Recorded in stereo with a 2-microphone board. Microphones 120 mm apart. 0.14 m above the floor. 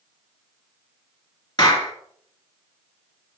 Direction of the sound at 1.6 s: 40° left (ahead or behind).